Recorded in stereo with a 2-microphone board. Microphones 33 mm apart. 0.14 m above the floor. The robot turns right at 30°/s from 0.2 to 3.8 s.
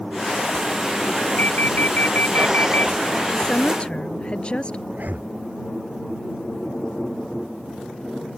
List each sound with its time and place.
1.4 s an alarm: 65° left; by 2.9 s 115° left
3.3 s a woman speaking: 25° left (ahead or behind); by 4.8 s 35° left (ahead or behind)
4.9 s breathing: 65° right (ahead or behind)